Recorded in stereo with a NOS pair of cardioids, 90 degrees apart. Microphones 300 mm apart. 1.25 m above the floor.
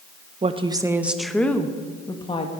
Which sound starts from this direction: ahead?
A woman speaking, at 0.4 s.